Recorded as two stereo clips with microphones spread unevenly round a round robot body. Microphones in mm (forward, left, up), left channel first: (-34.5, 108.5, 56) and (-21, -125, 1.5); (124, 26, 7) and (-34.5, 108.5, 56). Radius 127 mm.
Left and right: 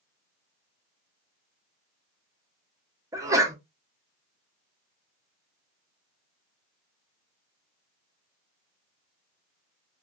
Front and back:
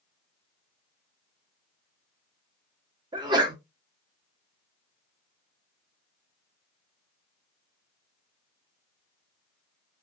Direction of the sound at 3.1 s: 130° right.